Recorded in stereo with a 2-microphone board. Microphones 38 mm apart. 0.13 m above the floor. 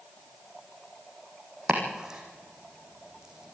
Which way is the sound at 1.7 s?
15° right (ahead or behind).